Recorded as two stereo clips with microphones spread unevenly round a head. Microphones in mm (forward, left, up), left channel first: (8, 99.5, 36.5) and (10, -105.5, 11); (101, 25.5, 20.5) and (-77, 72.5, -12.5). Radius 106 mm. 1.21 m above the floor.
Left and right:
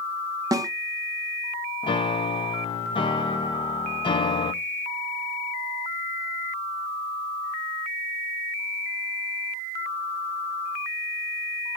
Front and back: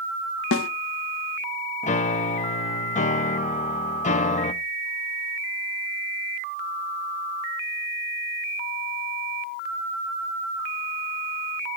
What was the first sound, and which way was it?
A snare drum, 15° right.